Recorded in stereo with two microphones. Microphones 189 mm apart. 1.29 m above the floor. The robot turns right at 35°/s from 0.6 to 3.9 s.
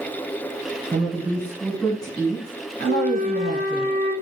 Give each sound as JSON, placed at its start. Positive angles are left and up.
{"t": 0.9, "sound": "a woman speaking", "azimuth_deg": -30, "distance_m": 1.3}
{"t": 2.9, "sound": "a flute", "azimuth_deg": -60, "distance_m": 1.3}